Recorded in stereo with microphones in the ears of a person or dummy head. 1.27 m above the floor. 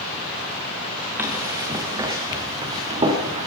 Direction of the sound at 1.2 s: 10° right (ahead or behind).